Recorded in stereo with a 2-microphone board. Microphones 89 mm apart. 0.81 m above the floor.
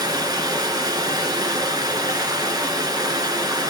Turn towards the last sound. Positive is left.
turn(degrees=-45)  # may be behind; listen again after turning